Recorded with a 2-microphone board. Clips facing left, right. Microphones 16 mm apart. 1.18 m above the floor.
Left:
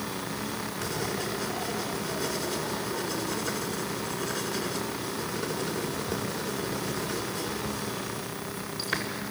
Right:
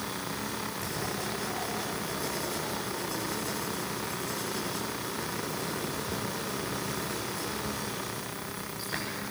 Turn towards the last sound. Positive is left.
turn(degrees=50)  # may be behind; listen again after turning